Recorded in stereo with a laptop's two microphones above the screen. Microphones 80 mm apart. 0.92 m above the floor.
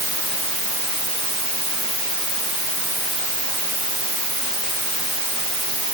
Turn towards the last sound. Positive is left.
No sound to turn to.